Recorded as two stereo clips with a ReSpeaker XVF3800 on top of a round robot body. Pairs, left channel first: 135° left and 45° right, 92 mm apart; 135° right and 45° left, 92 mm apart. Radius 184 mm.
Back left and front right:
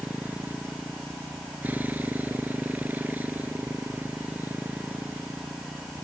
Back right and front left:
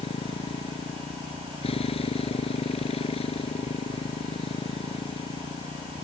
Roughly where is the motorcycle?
Behind right.